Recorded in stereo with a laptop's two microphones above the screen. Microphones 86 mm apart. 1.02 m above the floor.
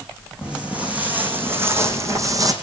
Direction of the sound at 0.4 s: 10° right (ahead or behind).